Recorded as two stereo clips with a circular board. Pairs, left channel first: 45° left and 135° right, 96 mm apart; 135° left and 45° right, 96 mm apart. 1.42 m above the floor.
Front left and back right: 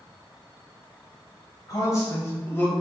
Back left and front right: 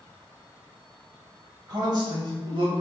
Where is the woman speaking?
5° right, 2.0 m; by 2.7 s 25° right, 1.4 m.